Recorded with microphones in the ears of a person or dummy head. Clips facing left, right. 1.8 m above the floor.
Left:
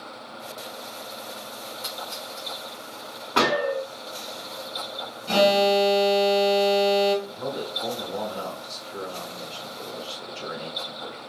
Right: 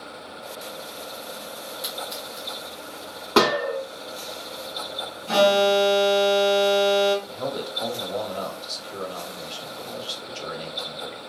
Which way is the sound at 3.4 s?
60° right (ahead or behind).